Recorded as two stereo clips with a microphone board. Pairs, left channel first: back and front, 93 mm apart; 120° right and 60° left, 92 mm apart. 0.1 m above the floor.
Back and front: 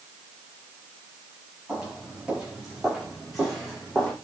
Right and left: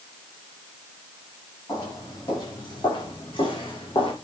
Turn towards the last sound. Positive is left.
turn(degrees=-95)